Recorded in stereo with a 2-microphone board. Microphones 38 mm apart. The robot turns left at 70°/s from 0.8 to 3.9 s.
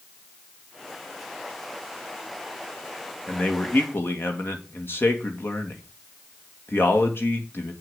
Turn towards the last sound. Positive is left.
turn(degrees=115)